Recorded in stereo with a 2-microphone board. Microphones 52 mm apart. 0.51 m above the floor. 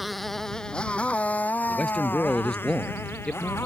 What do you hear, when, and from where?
0.0 s a motorcycle: centre (ahead or behind); by 3.7 s 50° left (ahead or behind)
1.7 s a man speaking: 15° left (ahead or behind)